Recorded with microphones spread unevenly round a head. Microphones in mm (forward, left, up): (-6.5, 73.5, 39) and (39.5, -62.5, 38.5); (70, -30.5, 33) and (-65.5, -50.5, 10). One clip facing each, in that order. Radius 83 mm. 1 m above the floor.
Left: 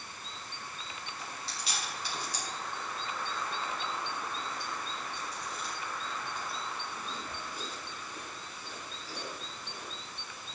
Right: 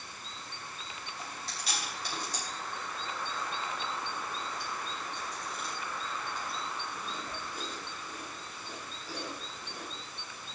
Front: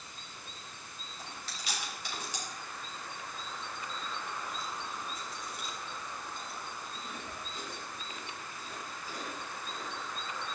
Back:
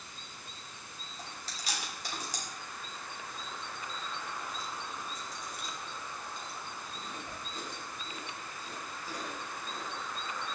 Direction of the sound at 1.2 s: 120° right.